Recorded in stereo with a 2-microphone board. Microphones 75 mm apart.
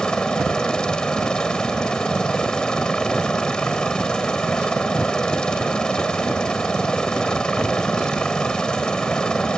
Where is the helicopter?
10° left (ahead or behind).